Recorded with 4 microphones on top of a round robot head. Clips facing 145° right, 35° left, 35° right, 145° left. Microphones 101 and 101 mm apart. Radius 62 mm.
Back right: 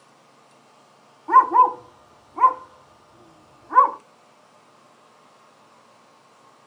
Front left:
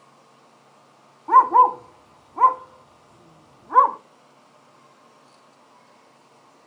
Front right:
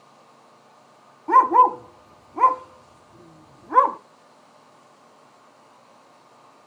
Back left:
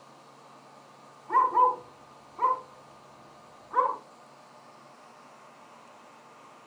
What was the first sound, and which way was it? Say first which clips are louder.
A dog barking: front left 1 dB, front right 8 dB; 45° right.